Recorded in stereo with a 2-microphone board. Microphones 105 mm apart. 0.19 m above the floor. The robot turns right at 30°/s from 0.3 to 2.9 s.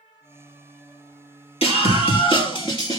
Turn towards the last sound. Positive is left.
turn(degrees=140)